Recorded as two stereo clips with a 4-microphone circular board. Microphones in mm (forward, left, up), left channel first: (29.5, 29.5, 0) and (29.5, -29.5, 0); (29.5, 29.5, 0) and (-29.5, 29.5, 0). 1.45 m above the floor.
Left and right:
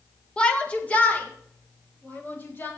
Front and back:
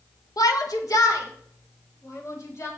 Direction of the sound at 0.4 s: 15° left.